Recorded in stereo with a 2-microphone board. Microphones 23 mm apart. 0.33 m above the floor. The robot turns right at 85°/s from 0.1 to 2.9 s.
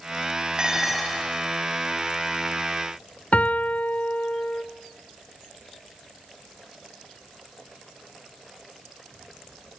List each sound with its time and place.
0.6 s dishes clattering: 35° right, 4.5 m; by 1.3 s 25° left, 4.5 m
3.3 s a piano: 75° left (ahead or behind), 0.6 m